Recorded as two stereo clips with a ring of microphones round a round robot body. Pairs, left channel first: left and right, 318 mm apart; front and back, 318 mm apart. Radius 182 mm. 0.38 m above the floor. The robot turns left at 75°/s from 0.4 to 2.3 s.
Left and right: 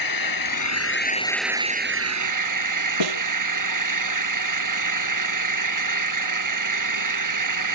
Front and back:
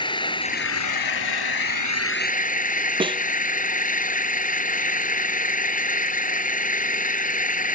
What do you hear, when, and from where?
0.0 s an engine running: 75° left; by 7.8 s 65° right
3.0 s a snare drum: 105° right